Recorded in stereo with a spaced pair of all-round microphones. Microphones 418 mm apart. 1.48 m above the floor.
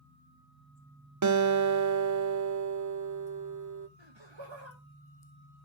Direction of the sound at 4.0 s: 80° right.